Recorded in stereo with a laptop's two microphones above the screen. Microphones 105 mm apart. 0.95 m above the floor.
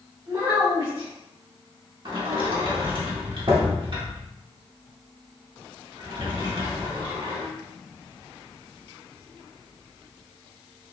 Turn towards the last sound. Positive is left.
turn(degrees=-50)  # may be behind; listen again after turning